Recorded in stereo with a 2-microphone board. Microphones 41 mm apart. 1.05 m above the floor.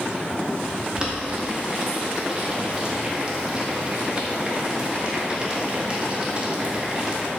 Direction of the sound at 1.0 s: 25° right (ahead or behind).